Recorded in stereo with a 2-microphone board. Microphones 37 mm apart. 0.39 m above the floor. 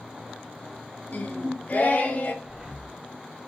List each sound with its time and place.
1.1 s singing: 50° left (ahead or behind), 1.6 m
2.4 s breathing: 15° right (ahead or behind), 1.6 m